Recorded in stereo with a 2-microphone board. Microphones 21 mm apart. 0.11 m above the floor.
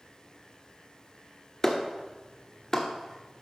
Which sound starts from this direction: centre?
A clap, at 1.6 s.